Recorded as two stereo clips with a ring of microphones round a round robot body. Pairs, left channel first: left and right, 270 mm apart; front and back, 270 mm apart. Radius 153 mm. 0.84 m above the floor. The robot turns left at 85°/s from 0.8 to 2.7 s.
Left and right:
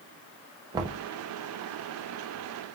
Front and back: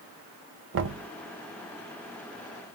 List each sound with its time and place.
0.7 s knocking: 160° right, 0.6 m; by 1.1 s 175° left, 0.6 m